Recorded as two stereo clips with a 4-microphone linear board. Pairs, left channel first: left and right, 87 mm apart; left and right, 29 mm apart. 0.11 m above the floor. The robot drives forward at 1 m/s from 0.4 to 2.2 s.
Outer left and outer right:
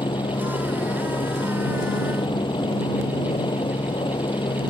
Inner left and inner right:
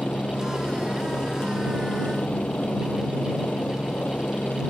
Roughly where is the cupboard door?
I don't hear a cupboard door.